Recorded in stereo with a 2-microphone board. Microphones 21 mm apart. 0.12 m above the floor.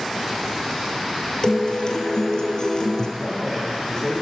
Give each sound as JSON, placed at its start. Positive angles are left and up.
{"t": 1.4, "sound": "a guitar", "side_deg": 35, "distance_m": 1.6}
{"t": 3.2, "sound": "a man speaking", "side_deg": 25, "distance_m": 6.0}